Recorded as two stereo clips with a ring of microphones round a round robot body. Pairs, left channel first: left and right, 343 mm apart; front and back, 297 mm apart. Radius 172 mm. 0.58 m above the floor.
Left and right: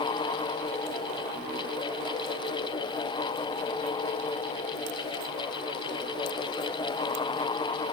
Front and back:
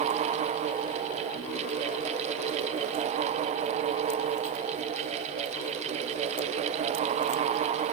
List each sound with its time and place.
Only background noise.